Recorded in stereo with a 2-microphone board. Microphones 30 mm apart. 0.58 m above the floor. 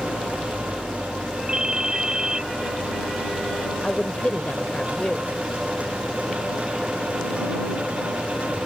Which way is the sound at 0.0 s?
80° left.